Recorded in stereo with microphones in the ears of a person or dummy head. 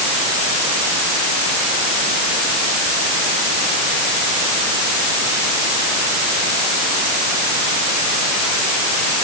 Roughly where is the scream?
No scream in this recording.